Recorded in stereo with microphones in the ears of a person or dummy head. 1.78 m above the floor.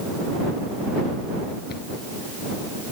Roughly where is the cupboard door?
Left.